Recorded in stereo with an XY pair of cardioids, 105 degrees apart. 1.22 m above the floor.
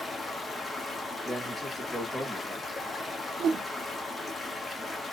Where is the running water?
15° left, 1.2 m.